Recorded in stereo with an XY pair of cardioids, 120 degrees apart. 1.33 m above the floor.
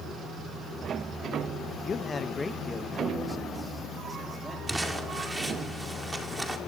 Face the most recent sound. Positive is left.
turn(degrees=-15)